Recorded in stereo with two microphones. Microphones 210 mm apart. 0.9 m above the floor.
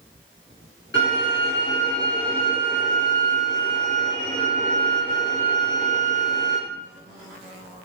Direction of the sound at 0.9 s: 60° left (ahead or behind).